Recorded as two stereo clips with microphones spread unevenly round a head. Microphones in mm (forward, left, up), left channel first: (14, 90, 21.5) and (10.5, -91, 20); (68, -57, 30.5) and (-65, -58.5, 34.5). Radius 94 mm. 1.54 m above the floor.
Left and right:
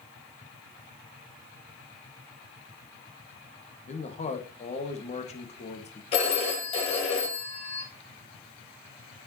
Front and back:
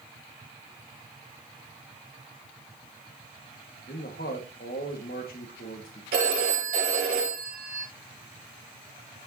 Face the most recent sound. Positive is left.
turn(degrees=150)